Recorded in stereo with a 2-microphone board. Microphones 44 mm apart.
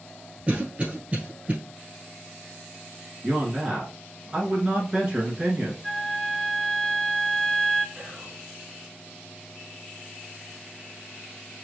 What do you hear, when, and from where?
0.5 s a cough: 30° right (ahead or behind), 1.3 m
3.2 s a man speaking: 20° right (ahead or behind), 1.2 m
5.8 s a flute: 10° left (ahead or behind), 0.6 m
8.0 s whispering: 20° right (ahead or behind), 1.1 m